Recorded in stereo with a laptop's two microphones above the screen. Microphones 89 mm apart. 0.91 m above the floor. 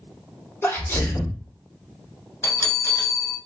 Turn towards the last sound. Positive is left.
turn(degrees=30)  # may be behind; listen again after turning